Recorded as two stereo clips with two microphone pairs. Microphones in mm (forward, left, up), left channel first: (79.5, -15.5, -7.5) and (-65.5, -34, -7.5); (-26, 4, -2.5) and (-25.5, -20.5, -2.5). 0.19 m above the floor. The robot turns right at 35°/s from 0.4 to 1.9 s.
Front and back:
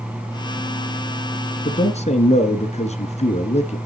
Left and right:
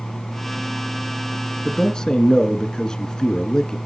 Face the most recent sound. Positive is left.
turn(degrees=35)